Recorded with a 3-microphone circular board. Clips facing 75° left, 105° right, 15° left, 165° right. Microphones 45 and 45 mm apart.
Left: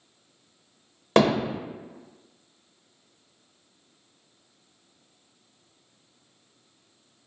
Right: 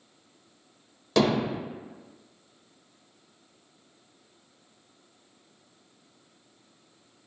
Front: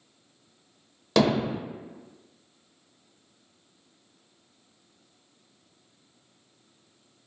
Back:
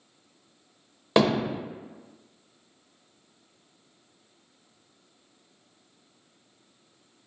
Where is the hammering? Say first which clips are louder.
Left 3 dB, even; 125° left, 0.6 m.